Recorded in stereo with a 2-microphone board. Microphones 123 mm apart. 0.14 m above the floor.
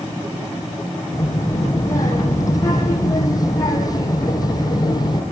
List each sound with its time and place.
1.1 s a child speaking: 25° left (ahead or behind), 5 m; by 5.2 s 35° left (ahead or behind), 3 m